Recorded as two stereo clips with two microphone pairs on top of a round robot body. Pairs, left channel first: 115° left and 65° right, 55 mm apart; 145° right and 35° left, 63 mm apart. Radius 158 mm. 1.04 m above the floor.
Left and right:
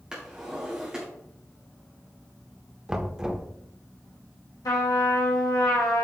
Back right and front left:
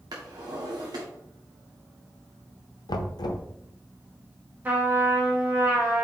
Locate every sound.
0.1 s a drawer: 15° left, 1.1 m
2.9 s knocking: 145° right, 0.8 m
4.7 s a trumpet: 100° left, 1.2 m